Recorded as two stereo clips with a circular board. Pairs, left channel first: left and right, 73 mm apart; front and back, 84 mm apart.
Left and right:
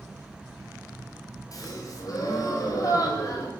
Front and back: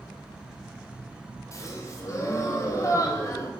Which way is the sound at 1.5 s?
55° left.